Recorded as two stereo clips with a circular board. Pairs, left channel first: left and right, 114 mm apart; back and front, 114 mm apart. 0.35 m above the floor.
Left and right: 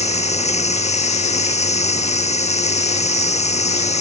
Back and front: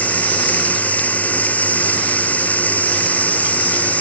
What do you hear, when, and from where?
0.0 s running water: 105° left